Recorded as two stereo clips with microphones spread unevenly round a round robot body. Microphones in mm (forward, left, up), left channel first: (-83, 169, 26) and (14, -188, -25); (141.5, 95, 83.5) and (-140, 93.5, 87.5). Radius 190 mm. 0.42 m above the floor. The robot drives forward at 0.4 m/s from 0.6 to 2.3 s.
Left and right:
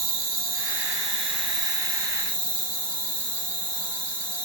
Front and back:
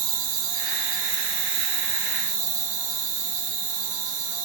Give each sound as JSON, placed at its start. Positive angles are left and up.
{"t": 0.0, "sound": "an insect", "azimuth_deg": -140, "distance_m": 1.0}